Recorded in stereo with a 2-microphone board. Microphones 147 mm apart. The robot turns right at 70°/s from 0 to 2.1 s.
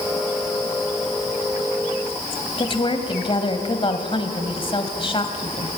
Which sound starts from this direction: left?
A woman speaking, at 2.6 s.